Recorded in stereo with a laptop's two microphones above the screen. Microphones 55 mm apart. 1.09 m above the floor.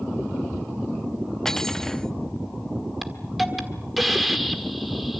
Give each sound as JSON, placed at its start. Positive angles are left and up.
{"t": 1.4, "sound": "cutlery clinking", "side_deg": 10, "distance_m": 0.9}
{"t": 3.0, "sound": "a hiss", "side_deg": 0, "distance_m": 1.5}